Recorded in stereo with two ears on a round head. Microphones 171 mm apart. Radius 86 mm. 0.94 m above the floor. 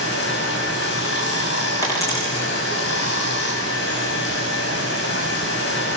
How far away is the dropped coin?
About 6.5 m.